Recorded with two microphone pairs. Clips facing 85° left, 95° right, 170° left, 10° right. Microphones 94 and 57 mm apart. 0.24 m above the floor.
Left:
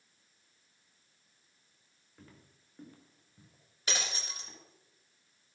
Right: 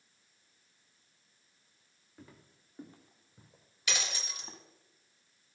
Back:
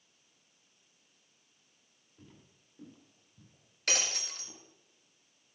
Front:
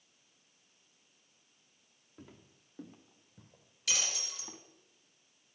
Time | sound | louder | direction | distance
2.2 | footsteps | right 2 dB, front 3 dB | 10° right | 3 m
3.9 | breaking glass | even, back 3 dB | 135° left | 1.8 m